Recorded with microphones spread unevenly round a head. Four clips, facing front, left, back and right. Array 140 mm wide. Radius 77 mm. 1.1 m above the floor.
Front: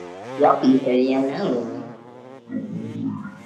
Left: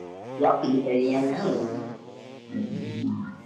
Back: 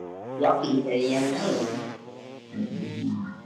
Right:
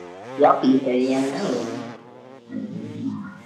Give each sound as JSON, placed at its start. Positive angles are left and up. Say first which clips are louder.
{"t": 0.4, "sound": "laughter", "louder": "right 6 dB, front 7 dB", "azimuth_deg": -75, "distance_m": 0.6}